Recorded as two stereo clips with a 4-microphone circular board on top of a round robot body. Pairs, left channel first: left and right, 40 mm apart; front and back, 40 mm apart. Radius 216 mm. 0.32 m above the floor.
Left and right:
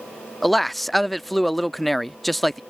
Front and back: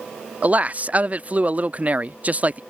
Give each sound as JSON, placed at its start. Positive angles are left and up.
{"t": 0.4, "sound": "a man speaking", "azimuth_deg": 175}